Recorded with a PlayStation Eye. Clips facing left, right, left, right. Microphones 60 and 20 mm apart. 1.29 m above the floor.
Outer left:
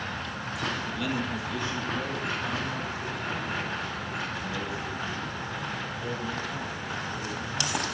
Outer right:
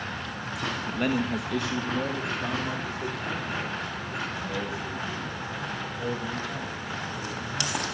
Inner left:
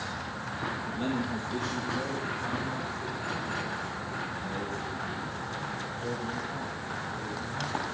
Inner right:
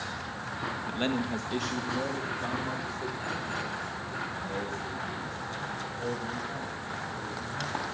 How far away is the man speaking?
About 1.0 m.